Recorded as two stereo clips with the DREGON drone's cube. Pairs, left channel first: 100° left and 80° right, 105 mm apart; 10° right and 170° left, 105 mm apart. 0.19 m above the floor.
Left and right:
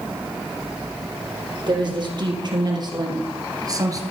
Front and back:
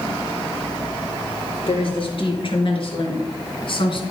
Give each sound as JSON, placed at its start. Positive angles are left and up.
{"t": 1.7, "sound": "a woman speaking", "azimuth_deg": -40, "distance_m": 4.0}